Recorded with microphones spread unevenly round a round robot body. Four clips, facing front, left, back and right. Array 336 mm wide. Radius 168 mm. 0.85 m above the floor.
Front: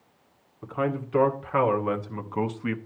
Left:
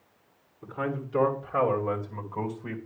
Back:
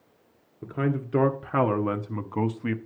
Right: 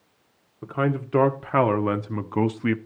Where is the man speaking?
135° right, 1.8 m; by 2.8 s 95° right, 1.0 m.